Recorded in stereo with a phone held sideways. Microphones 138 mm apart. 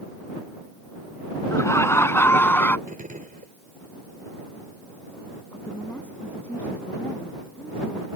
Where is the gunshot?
80° right.